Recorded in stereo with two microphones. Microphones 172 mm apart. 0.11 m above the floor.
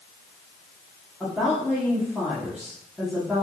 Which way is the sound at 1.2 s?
5° right (ahead or behind).